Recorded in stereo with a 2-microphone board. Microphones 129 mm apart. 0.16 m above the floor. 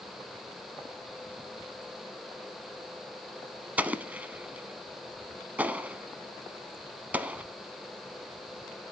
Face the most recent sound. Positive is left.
turn(degrees=-10)  # may be behind; listen again after turning